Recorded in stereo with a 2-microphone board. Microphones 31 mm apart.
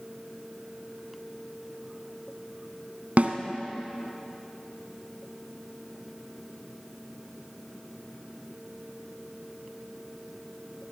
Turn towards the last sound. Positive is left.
turn(degrees=-60)  # may be behind; listen again after turning